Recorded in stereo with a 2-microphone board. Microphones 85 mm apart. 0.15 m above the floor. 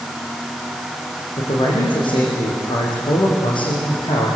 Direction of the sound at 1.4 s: 75° left (ahead or behind).